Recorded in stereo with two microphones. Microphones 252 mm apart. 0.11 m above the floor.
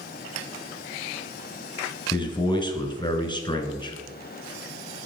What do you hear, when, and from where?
2.1 s a man speaking: 20° left (ahead or behind), 1.2 m